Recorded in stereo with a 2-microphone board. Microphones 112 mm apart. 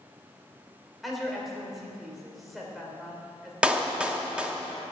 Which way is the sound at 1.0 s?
Centre (ahead or behind).